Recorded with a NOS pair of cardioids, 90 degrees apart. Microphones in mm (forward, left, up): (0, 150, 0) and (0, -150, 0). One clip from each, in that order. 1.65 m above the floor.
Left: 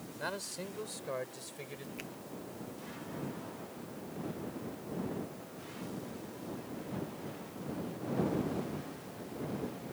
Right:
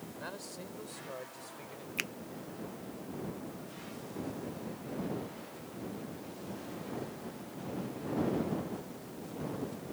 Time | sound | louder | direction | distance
0.2 | a man speaking | left 6 dB | 45° left | ?
2.0 | a finger snap | right 13 dB | 60° right | ?